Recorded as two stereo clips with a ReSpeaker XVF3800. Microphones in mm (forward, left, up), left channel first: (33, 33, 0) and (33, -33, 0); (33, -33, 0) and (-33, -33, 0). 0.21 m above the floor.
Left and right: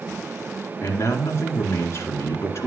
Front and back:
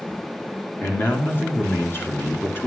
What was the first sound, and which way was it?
A man speaking, 50° left.